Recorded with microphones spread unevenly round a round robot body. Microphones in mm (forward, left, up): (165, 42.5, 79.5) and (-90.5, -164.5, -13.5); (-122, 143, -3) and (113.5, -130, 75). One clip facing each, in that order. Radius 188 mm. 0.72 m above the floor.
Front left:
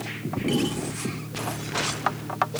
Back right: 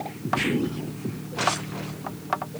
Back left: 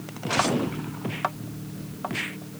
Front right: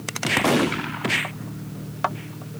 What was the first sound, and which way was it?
Only background noise.